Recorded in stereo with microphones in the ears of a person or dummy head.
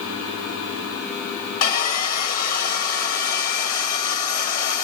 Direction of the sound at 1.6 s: 40° left (ahead or behind).